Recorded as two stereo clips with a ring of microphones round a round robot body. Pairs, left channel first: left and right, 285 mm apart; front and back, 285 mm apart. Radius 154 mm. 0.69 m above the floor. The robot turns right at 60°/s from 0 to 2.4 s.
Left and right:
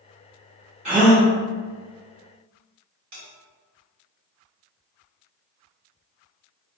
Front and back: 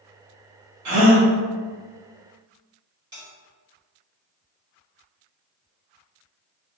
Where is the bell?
105° right, 1.9 m.